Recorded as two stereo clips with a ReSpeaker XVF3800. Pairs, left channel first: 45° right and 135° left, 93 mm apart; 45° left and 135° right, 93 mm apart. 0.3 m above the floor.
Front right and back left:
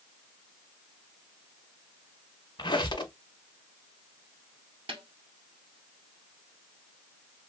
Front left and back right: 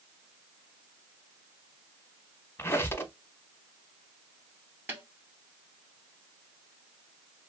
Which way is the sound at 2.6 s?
20° right.